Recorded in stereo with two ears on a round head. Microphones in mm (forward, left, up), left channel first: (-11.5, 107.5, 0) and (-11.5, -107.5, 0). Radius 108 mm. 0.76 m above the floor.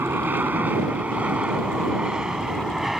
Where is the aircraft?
10° right (ahead or behind); by 3.0 s centre (ahead or behind).